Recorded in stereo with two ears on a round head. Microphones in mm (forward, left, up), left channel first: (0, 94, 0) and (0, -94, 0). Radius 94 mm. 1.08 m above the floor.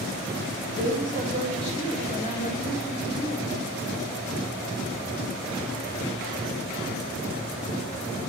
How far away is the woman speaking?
About 3 m.